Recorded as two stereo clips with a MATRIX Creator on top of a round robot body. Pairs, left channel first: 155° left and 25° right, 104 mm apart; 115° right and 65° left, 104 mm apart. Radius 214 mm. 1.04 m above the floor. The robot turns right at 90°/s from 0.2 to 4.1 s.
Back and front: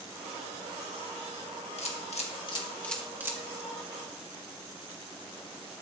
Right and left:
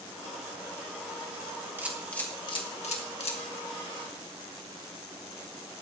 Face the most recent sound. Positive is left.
turn(degrees=-15)